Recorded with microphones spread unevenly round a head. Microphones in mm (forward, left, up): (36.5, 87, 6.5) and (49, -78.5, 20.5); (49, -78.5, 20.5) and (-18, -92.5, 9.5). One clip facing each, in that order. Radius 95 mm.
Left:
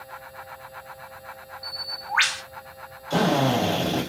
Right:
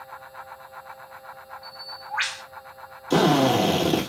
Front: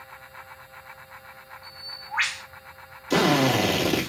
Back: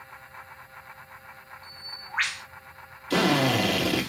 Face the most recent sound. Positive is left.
turn(degrees=-60)